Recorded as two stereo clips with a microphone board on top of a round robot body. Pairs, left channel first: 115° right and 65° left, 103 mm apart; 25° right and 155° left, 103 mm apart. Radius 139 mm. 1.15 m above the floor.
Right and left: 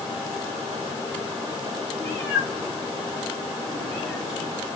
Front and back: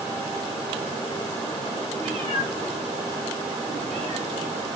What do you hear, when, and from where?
2.0 s a cat meowing: straight behind, 1.5 m